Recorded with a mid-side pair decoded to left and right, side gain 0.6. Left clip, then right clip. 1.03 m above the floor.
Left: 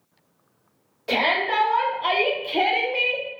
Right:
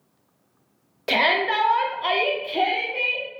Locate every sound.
1.1 s a shout: 45° right, 1.0 m; by 3.3 s 55° left, 0.8 m